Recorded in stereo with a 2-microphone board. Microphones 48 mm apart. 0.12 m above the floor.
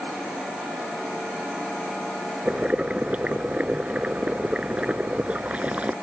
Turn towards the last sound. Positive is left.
turn(degrees=-30)  # may be behind; listen again after turning